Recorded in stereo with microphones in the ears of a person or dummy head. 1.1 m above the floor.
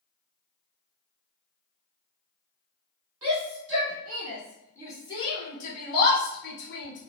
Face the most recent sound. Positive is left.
turn(degrees=55)  # may be behind; listen again after turning